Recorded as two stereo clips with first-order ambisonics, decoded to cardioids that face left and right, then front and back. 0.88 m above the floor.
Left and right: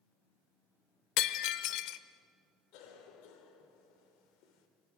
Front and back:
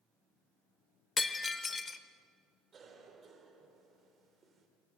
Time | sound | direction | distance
1.2 | breaking glass | 70° left | 0.8 m
2.7 | a cough | 110° left | 3 m